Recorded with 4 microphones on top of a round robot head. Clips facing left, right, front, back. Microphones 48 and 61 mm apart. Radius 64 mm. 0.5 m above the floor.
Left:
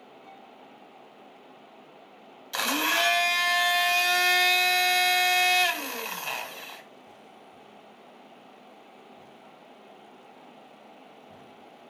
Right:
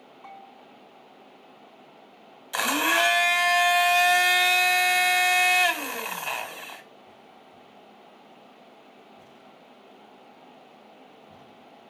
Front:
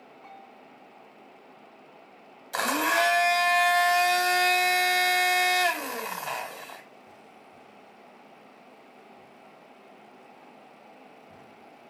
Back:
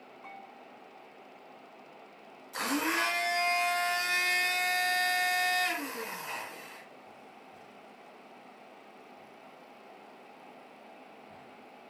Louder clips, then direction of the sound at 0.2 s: Right 7 dB, even; 110° right.